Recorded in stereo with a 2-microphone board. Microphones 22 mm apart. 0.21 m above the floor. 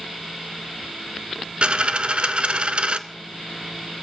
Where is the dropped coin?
55° right (ahead or behind), 0.5 m.